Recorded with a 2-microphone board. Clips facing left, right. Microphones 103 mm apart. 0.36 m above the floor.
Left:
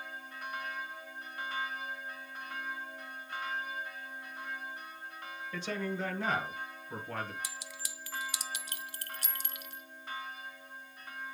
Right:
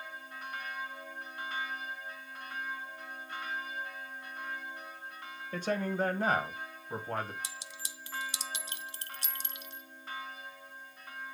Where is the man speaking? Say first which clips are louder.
Right 4 dB; 45° right (ahead or behind), 1.7 m; by 7.3 s 35° right (ahead or behind), 2.5 m.